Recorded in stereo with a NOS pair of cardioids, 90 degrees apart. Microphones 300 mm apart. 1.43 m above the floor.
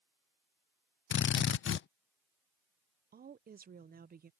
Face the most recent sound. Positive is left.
turn(degrees=-30)